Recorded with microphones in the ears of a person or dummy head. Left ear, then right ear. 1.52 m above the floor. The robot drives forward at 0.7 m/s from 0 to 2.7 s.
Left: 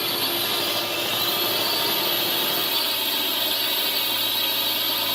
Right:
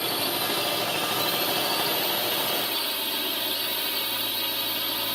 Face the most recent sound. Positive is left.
turn(degrees=10)  # may be behind; listen again after turning